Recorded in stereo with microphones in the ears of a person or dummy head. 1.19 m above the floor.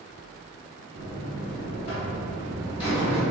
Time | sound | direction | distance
0.9 | a buzzer | 25° left (ahead or behind) | 1.4 m